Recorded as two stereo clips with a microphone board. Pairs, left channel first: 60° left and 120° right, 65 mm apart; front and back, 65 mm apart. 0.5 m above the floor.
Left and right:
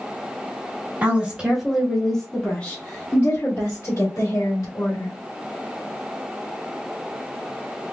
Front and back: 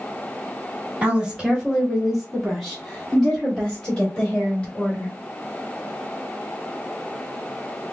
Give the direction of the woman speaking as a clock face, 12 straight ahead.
4 o'clock.